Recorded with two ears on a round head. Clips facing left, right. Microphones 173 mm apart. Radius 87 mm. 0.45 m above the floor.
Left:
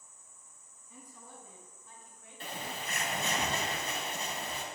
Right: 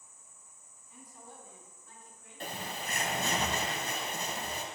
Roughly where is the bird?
Right.